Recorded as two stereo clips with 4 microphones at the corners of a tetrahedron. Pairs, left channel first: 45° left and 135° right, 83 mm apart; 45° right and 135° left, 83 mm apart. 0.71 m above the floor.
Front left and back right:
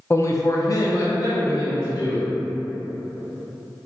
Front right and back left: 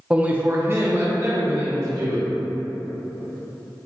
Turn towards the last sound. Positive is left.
turn(degrees=90)